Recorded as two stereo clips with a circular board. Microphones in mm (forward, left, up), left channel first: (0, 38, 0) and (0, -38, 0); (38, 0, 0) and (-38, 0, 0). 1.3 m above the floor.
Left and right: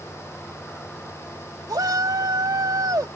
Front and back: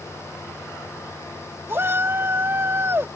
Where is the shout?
125° right.